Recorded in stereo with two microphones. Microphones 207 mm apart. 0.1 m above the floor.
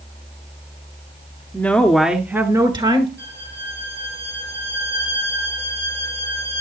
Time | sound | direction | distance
1.5 | a woman speaking | 10° left (ahead or behind) | 1.4 m
3.2 | a violin | 50° right (ahead or behind) | 4.5 m